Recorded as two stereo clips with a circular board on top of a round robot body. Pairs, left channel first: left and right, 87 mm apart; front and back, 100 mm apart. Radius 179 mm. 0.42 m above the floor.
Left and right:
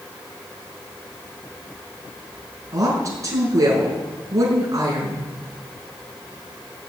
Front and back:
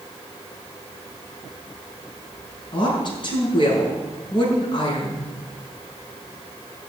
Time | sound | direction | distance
2.7 | a woman speaking | 40° right | 6 m